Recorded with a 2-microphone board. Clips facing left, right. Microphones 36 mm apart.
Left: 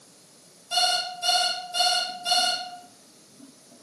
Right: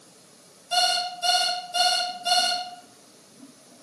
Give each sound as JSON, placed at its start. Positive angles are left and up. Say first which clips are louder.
{"t": 0.7, "sound": "an alarm clock", "louder": "right 1 dB", "side_deg": 0, "distance_m": 1.8}